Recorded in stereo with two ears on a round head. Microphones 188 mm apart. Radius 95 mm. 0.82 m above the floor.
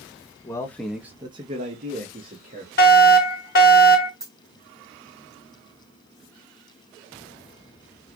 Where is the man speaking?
15° left (ahead or behind), 0.9 m; by 2.7 s 40° right (ahead or behind), 1.7 m.